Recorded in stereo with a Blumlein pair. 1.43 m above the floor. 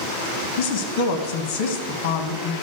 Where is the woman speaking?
50° left, 1.6 m.